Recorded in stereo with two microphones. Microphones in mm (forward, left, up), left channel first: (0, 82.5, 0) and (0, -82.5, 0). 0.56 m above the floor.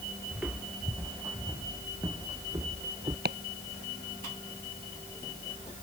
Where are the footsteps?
5° right (ahead or behind); by 3.1 s 30° right (ahead or behind).